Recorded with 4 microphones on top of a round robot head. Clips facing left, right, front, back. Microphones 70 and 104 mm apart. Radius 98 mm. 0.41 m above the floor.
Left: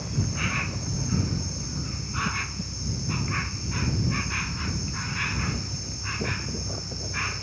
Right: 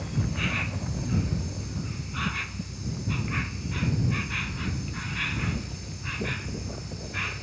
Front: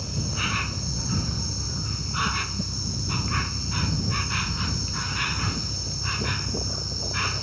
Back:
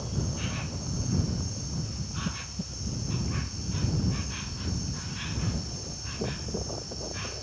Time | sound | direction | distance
0.0 | an insect | 10° left | ?